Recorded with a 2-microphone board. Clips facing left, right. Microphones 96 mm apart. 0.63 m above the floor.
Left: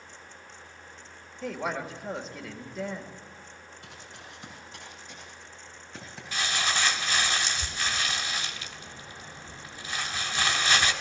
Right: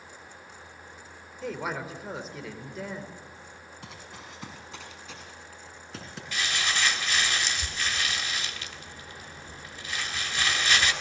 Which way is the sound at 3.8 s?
80° right.